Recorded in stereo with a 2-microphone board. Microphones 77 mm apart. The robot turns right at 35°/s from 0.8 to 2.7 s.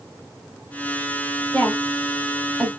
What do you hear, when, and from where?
1.5 s a woman speaking: 25° left (ahead or behind), 2 m; by 2.7 s 15° right (ahead or behind), 2 m